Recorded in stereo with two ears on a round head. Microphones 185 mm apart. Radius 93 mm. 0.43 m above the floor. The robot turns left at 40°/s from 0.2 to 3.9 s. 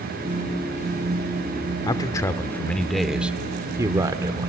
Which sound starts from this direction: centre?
A man speaking, at 1.9 s.